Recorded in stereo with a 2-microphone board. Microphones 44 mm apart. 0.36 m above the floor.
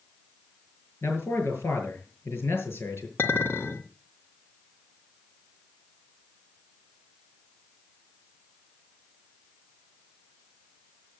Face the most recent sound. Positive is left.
turn(degrees=55)  # may be behind; listen again after turning